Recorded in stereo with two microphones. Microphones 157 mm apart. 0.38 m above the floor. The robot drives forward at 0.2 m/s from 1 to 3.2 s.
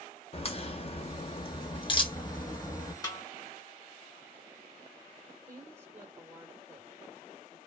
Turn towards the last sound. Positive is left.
turn(degrees=-15)  # may be behind; listen again after turning